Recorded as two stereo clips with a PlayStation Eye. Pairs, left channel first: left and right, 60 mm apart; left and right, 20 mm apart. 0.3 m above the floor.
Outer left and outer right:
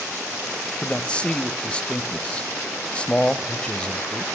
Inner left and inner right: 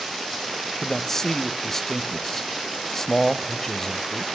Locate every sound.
0.8 s a man speaking: 20° left (ahead or behind), 1.0 m